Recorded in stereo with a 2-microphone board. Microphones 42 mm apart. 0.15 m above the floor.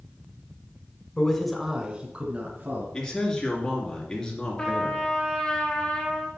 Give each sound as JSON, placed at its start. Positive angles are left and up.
{"t": 1.2, "sound": "a man speaking", "side_deg": 20, "distance_m": 1.1}
{"t": 2.9, "sound": "a man speaking", "side_deg": 15, "distance_m": 2.5}
{"t": 4.6, "sound": "a trumpet", "side_deg": 20, "distance_m": 1.5}